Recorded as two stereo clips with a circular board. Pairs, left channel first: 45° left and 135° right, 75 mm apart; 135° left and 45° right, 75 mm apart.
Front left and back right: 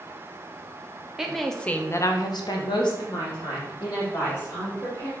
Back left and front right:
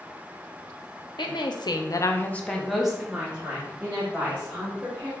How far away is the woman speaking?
About 0.7 m.